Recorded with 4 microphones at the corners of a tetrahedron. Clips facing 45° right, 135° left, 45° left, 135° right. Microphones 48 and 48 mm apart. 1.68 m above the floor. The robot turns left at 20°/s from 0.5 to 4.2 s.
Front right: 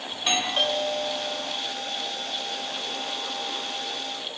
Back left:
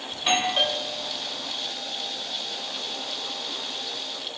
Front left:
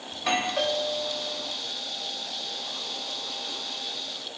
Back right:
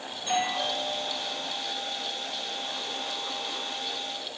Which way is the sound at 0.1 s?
55° left.